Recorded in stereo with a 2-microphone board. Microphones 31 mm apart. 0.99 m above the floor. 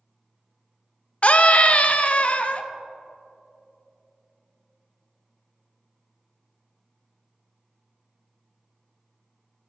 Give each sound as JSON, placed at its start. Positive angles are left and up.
{"t": 1.2, "sound": "a scream", "side_deg": 40, "distance_m": 0.7}